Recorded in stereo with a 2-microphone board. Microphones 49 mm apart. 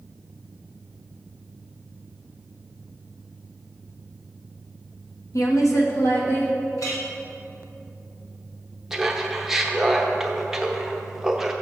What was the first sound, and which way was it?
A woman speaking, 80° left.